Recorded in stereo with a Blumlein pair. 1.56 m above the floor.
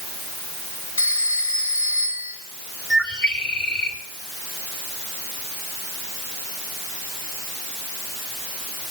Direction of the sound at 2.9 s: 20° left.